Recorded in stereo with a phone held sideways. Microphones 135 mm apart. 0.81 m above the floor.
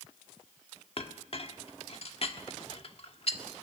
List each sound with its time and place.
1.0 s a clink: 50° left (ahead or behind), 1.4 m